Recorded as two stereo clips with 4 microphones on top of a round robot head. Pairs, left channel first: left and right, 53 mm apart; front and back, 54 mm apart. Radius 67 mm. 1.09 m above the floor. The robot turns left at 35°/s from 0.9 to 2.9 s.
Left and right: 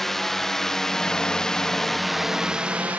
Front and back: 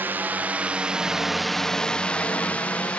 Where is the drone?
170° left; by 3.0 s 50° right.